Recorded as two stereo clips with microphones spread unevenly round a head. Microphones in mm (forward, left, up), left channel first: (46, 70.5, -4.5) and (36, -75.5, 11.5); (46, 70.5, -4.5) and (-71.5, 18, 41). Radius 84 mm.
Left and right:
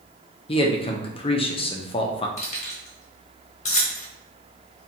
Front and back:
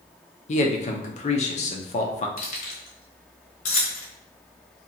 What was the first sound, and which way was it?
A man speaking, 35° left.